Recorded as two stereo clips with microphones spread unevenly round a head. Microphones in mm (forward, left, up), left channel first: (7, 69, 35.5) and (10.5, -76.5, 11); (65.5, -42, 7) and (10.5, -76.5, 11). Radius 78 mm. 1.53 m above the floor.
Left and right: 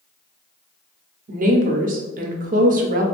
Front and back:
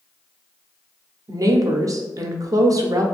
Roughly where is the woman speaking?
Behind right.